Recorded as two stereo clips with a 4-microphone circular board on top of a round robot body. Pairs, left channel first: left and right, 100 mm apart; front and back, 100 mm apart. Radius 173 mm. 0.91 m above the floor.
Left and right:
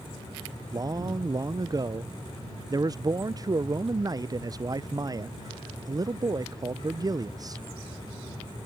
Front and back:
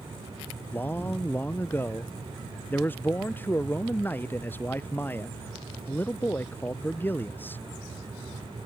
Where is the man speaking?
60° right.